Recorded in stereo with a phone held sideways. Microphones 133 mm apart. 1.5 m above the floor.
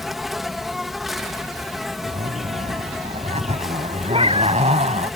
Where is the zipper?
65° right (ahead or behind).